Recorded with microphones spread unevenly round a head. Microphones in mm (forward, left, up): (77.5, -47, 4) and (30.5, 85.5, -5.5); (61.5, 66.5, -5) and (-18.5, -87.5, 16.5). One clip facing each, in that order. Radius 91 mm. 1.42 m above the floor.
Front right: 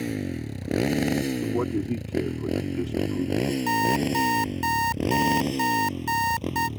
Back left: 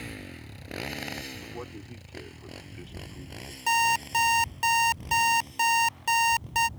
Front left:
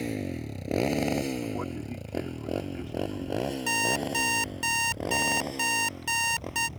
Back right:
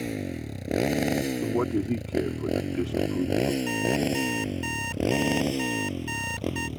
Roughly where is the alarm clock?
Ahead left.